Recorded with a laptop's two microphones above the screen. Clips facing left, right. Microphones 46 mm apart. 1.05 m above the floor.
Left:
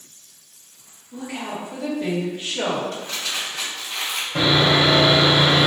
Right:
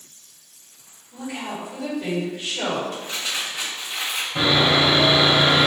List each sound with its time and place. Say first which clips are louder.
1.1 s a woman speaking: left 1 dB; 35° left (ahead or behind), 1.6 m
2.9 s crumpling: even; 65° left (ahead or behind), 1.9 m
4.3 s sawing: left 1 dB; 70° left (ahead or behind), 1.4 m